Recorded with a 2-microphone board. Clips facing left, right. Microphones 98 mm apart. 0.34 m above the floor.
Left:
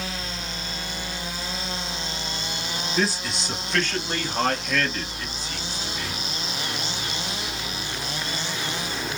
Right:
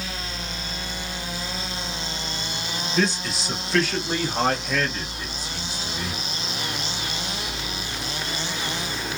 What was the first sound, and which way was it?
A man speaking, 5° left (ahead or behind).